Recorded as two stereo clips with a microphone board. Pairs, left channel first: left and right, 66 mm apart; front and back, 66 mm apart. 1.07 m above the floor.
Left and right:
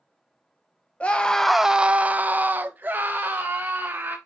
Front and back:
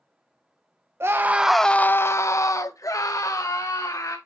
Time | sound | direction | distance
1.0 | a scream | 150° left | 0.7 m